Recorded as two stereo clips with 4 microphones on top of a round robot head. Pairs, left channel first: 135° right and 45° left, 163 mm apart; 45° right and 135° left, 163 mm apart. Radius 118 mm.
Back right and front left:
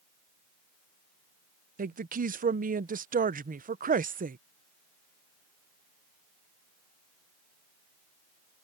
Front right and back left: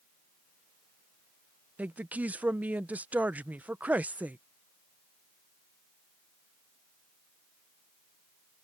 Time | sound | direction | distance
1.8 | a woman speaking | 55° left | ?